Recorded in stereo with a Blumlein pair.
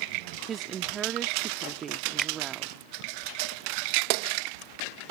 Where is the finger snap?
15° right.